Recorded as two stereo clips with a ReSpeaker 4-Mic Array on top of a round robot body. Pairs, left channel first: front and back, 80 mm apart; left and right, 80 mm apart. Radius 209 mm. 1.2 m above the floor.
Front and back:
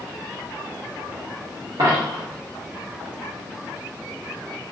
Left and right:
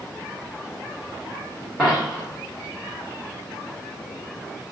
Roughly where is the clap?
I don't hear a clap.